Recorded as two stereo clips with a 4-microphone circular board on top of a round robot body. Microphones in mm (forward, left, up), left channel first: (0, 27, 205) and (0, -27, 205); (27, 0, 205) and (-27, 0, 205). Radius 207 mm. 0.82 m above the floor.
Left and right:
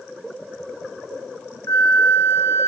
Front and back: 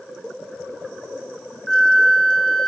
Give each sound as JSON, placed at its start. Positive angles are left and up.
{"t": 1.7, "sound": "a flute", "azimuth_deg": 85, "distance_m": 1.1}